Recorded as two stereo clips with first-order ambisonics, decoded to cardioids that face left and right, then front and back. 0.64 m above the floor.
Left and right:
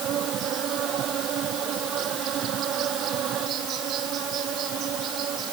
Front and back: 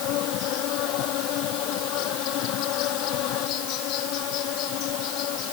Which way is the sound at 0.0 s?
35° right.